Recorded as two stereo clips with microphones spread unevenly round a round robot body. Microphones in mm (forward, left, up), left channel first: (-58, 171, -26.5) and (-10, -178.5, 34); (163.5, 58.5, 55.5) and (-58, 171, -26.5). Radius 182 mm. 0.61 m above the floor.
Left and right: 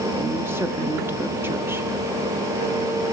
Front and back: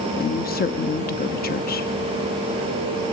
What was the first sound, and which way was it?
A woman speaking, 15° left.